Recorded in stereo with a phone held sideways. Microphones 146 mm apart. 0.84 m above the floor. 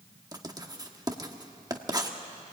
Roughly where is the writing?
Right.